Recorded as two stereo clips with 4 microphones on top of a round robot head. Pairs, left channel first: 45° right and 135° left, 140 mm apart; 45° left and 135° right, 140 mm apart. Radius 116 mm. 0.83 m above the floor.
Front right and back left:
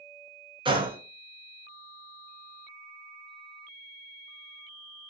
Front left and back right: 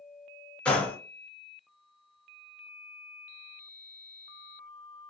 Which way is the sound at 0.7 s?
120° left.